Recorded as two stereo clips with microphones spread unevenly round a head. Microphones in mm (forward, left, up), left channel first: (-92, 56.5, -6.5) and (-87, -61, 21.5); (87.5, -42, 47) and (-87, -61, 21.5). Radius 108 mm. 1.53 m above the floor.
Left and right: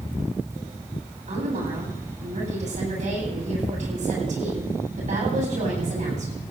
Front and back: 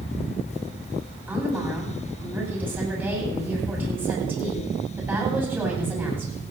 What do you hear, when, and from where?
1.3 s a woman speaking: 95° right, 9 m